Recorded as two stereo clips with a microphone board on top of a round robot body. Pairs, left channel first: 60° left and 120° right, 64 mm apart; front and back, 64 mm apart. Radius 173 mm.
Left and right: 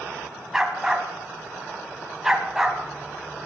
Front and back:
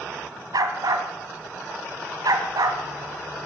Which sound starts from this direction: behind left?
A dog barking, at 0.5 s.